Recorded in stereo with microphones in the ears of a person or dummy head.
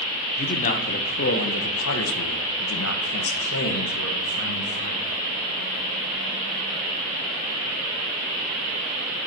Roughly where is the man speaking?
Left.